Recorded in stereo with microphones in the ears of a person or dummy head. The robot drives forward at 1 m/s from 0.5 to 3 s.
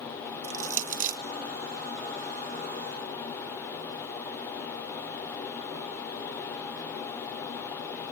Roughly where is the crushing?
Right.